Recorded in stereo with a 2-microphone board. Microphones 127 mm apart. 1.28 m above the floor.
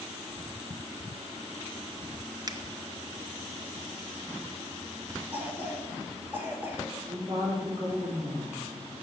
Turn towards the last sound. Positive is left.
turn(degrees=-40)  # may be behind; listen again after turning